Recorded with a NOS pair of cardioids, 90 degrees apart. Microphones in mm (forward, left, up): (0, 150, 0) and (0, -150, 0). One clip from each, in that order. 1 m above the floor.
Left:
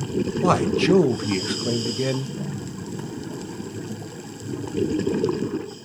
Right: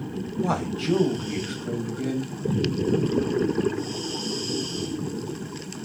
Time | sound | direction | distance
0.4 | a man speaking | 45° left | 0.7 m